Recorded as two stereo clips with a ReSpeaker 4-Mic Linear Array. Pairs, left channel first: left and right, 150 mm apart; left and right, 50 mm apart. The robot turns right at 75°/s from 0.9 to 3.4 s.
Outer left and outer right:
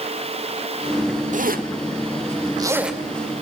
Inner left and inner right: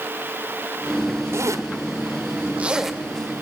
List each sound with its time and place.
1.3 s a zipper: 60° right (ahead or behind), 1.1 m; by 3.4 s 35° left (ahead or behind), 1.1 m